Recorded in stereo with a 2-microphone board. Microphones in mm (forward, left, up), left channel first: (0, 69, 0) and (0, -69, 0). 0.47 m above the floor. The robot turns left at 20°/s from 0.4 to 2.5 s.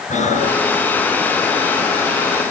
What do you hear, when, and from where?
0.1 s breathing: 60° left (ahead or behind), 5.5 m; by 0.7 s 55° left (ahead or behind), 5.5 m